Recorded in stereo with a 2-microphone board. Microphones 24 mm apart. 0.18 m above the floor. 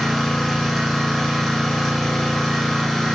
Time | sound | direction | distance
0.0 | an engine running | centre (ahead or behind) | 1.5 m